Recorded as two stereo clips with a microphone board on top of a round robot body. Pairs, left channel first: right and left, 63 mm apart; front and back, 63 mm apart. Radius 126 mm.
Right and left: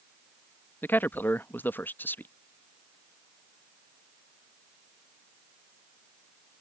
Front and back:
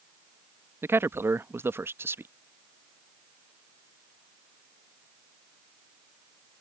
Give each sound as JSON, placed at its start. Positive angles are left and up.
{"t": 0.8, "sound": "a man speaking", "azimuth_deg": -140}